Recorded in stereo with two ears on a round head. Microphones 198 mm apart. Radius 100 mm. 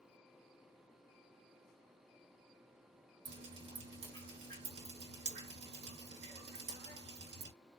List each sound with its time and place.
3.2 s dripping: 50° right (ahead or behind), 2.5 m